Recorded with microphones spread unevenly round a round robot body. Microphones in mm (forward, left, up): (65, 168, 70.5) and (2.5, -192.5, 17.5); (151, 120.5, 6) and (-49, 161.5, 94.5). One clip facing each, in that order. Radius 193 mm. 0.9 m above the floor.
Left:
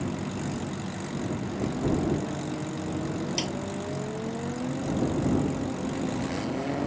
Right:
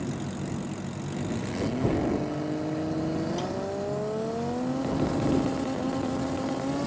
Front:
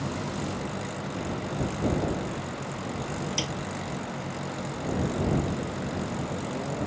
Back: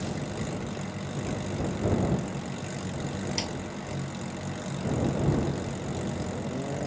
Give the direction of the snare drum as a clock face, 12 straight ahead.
11 o'clock.